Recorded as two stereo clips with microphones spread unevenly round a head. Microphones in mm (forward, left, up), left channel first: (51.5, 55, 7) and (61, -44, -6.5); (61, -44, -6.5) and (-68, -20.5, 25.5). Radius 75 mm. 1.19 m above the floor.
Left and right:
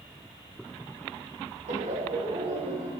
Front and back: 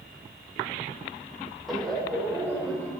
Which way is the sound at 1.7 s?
100° right.